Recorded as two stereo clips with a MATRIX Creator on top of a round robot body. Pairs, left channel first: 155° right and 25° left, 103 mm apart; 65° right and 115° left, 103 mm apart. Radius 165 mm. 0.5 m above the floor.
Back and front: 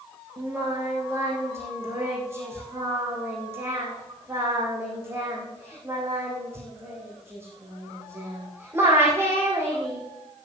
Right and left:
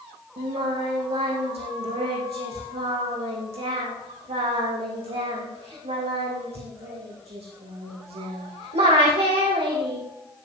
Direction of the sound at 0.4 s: 90° left.